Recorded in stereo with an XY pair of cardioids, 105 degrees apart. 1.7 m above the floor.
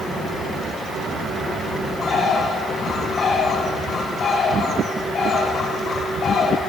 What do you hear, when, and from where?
2.0 s a bird: 50° left, 8 m